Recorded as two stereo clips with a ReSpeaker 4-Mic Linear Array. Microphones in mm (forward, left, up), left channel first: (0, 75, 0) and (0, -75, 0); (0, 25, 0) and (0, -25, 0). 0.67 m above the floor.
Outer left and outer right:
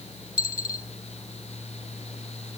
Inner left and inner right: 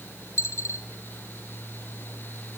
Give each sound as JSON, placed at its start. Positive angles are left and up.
{"t": 0.4, "sound": "a dropped coin", "side_deg": 70, "distance_m": 2.5}